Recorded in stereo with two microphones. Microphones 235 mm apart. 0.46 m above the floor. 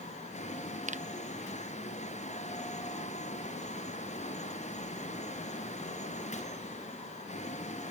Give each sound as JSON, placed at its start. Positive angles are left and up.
{"t": 0.9, "sound": "a finger snap", "side_deg": -35}